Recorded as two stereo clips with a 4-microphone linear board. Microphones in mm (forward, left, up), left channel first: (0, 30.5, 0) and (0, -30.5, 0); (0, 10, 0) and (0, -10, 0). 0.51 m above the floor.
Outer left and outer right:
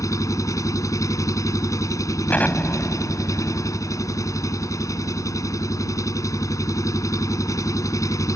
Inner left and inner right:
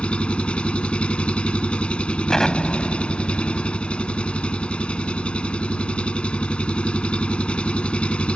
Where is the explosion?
30° left (ahead or behind).